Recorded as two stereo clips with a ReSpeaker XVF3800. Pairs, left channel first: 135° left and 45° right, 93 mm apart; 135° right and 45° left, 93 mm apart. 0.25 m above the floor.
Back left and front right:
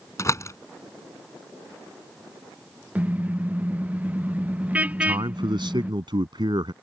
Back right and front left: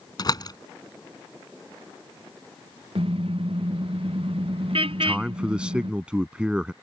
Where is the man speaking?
35° right.